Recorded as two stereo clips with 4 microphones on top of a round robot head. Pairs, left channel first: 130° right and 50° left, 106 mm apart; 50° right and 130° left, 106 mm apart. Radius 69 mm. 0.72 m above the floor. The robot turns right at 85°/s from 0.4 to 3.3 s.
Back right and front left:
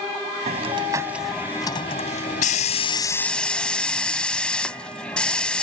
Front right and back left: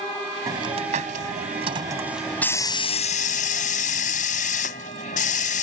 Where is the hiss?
70° left; by 5.6 s 50° right.